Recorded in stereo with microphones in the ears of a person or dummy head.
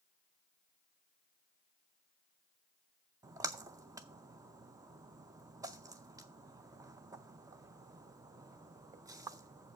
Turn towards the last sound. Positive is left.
turn(degrees=-25)  # may be behind; listen again after turning